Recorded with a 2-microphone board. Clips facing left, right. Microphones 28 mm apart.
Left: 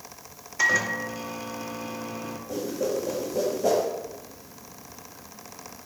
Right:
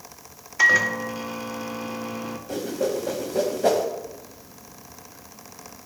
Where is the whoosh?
65° right (ahead or behind), 0.9 m.